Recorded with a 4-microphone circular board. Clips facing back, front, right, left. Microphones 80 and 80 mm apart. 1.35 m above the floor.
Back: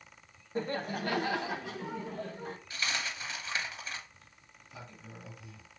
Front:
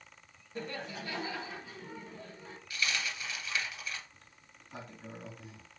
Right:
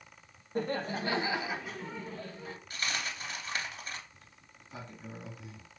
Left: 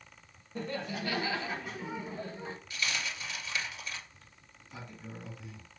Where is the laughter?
125° right, 1.3 m; by 2.6 s 150° left, 1.5 m.